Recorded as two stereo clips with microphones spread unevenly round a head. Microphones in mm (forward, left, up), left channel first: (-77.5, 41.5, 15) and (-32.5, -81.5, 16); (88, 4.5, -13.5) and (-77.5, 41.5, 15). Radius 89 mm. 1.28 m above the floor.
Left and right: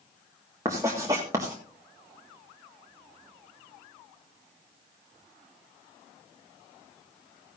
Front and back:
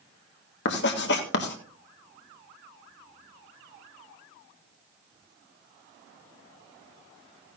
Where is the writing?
5° left, 1.7 m.